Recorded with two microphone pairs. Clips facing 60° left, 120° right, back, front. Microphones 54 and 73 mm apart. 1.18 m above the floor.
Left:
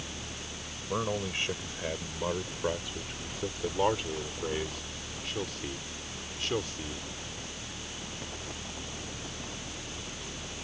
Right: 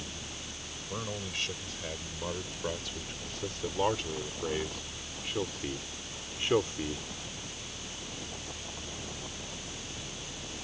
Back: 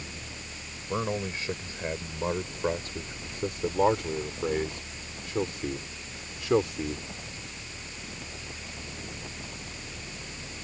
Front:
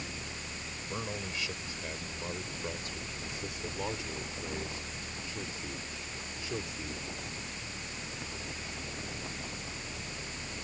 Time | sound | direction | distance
0.9 | a man speaking | 125° left | ?